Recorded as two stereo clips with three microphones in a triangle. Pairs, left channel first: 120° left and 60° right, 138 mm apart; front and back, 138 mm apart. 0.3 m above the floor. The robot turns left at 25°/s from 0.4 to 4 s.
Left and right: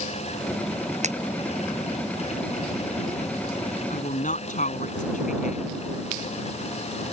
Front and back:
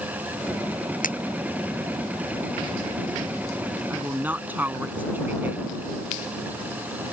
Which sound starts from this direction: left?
A woman speaking, at 3.9 s.